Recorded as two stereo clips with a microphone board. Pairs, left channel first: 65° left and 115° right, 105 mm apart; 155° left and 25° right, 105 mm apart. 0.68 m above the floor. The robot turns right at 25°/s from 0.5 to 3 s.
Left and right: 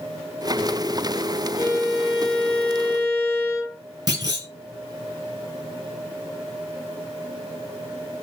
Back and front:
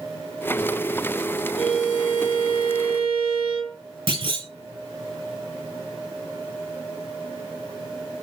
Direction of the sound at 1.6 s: 65° right.